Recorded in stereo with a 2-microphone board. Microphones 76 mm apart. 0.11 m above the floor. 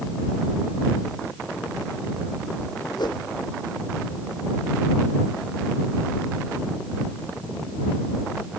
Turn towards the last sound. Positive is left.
turn(degrees=70)  # may be behind; listen again after turning